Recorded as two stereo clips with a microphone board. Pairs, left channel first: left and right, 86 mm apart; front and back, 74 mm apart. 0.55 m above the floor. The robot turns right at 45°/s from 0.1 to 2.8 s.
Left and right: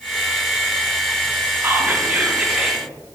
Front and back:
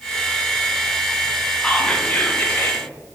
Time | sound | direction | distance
1.6 | whispering | 60° right | 0.7 m